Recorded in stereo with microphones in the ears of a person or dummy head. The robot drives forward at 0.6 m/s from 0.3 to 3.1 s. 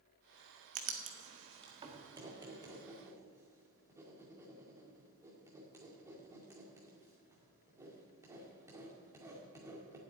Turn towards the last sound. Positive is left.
turn(degrees=-20)  # may be behind; listen again after turning